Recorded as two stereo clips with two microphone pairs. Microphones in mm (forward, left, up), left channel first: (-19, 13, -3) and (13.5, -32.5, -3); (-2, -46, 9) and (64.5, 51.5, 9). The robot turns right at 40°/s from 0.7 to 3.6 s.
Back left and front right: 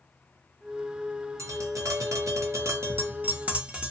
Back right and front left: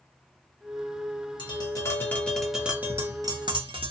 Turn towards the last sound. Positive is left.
turn(degrees=10)